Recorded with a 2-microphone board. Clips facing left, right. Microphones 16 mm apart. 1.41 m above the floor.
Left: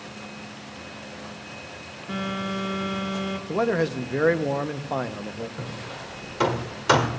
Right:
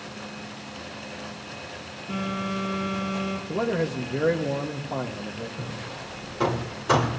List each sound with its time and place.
2.1 s a phone buzzing: 45° left (ahead or behind), 2 m
3.5 s a man speaking: 70° left (ahead or behind), 1.2 m
5.6 s hammering: 60° left (ahead or behind), 1.7 m